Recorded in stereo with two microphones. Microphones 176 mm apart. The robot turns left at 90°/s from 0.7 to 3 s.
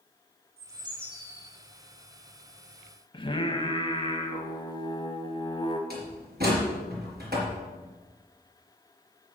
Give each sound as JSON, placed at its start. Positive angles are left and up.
{"t": 0.6, "sound": "a bird", "azimuth_deg": -140, "distance_m": 3.0}
{"t": 3.1, "sound": "singing", "side_deg": 30, "distance_m": 1.1}
{"t": 5.9, "sound": "a door slam", "side_deg": -75, "distance_m": 4.0}